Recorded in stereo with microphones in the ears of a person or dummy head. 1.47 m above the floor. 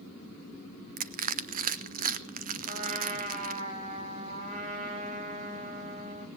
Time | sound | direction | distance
1.0 | crushing | 40° right (ahead or behind) | 0.8 m
2.7 | a trumpet | 35° right (ahead or behind) | 7 m